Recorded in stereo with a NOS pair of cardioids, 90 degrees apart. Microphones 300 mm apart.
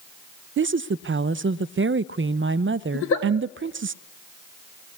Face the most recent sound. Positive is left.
turn(degrees=45)